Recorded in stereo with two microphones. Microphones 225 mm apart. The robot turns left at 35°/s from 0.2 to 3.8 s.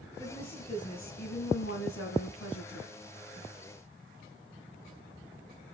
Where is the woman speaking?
165° left, 3.5 m; by 3.0 s 70° left, 3.5 m.